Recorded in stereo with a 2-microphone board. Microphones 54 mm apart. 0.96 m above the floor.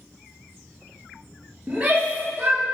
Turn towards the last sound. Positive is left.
turn(degrees=-40)  # may be behind; listen again after turning